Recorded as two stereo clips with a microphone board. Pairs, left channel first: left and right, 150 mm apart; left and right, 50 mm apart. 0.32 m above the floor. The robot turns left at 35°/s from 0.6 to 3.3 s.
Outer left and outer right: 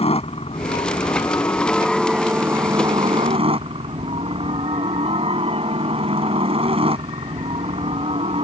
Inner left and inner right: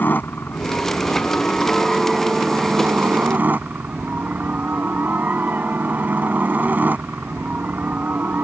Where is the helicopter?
50° left; by 8.4 s 45° right.